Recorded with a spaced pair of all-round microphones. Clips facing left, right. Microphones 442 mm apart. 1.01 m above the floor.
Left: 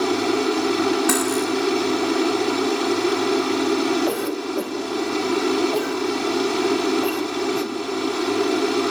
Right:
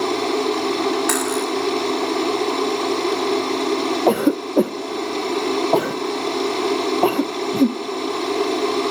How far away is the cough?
About 0.6 m.